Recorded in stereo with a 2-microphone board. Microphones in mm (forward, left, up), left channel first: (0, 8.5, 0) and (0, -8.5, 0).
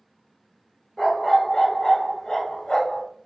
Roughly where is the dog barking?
Left.